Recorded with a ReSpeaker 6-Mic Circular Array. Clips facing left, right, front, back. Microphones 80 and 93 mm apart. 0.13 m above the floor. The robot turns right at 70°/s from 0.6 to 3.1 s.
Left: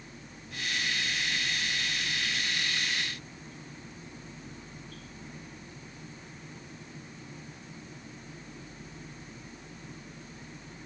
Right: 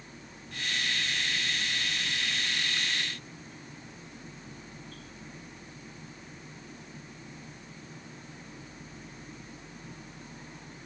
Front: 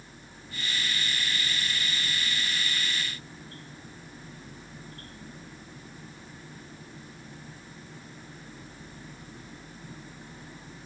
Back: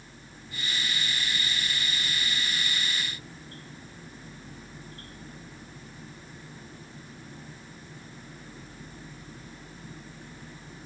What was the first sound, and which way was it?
Only background noise.